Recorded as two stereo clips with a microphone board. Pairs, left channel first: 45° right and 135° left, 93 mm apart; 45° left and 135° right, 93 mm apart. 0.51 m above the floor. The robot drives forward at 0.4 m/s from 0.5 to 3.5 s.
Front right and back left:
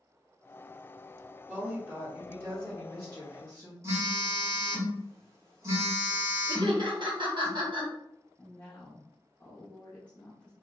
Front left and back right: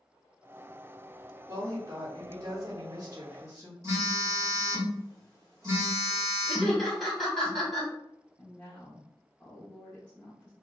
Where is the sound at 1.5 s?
165° right, 1.1 m; by 3.7 s 175° right, 1.7 m.